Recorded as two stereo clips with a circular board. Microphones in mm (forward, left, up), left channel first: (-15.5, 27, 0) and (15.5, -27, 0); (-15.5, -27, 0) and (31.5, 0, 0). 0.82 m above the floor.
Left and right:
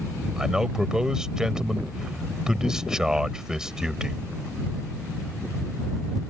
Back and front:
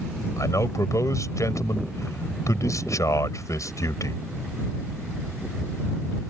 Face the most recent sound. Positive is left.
turn(degrees=-140)